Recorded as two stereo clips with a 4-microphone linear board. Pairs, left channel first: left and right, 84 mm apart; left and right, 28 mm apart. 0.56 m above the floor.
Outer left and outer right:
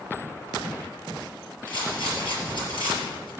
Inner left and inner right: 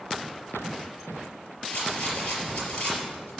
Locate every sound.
1.7 s a rattle: 70° left (ahead or behind), 4.5 m